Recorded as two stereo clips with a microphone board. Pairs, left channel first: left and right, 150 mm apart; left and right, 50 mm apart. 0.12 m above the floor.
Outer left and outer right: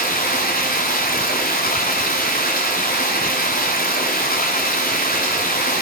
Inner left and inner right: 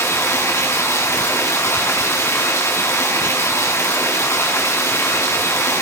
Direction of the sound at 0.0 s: 75° left (ahead or behind).